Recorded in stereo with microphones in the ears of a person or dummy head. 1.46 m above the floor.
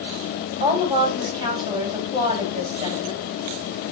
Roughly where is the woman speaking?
Right.